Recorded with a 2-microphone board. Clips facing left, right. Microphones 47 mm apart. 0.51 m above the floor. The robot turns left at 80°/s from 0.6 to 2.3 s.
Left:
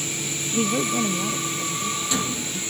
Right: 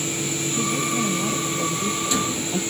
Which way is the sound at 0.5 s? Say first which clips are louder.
Left 3 dB; 45° left.